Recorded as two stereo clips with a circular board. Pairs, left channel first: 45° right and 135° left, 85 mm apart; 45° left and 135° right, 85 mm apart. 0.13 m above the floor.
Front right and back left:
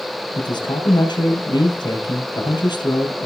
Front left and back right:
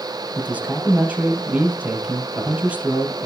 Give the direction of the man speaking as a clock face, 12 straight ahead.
2 o'clock.